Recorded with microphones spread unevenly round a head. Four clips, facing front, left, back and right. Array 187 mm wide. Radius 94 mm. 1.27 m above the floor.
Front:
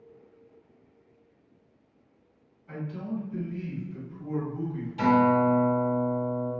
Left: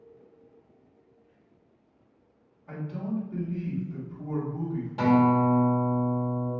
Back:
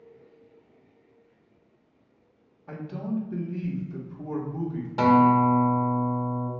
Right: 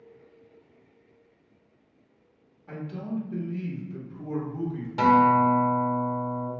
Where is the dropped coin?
No dropped coin in this recording.